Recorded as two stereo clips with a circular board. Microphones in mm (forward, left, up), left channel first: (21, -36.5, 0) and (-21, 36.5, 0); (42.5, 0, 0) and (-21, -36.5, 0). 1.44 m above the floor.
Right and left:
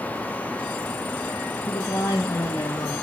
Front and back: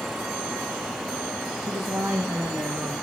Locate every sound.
1.7 s a woman speaking: 100° right, 1.8 m; by 2.9 s 95° right, 3 m